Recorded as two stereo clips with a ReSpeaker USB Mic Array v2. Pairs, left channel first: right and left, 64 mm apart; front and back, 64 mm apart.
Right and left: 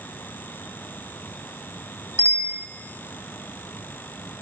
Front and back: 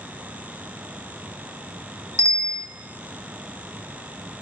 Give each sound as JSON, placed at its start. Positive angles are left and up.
{"t": 2.2, "sound": "a bicycle bell", "azimuth_deg": 140, "distance_m": 2.0}